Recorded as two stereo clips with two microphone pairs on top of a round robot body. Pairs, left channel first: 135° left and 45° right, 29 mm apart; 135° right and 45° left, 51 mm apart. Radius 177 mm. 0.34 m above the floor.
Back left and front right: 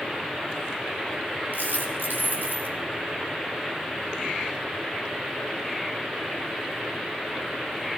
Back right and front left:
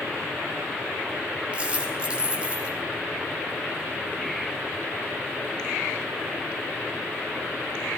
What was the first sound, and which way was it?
A dropped coin, 25° right.